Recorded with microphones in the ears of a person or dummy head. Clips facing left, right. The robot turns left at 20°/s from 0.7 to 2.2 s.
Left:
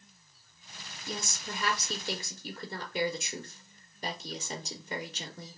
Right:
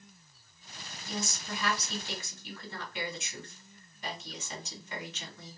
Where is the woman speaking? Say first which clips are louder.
Right 2 dB; 55° left (ahead or behind), 0.7 m; by 5.6 s 40° left (ahead or behind), 0.7 m.